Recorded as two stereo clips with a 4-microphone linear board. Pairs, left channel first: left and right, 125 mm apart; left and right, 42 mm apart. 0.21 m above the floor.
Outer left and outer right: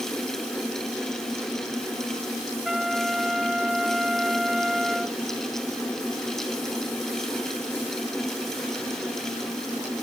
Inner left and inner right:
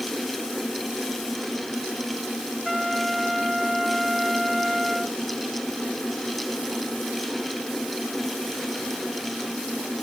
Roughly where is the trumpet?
Centre.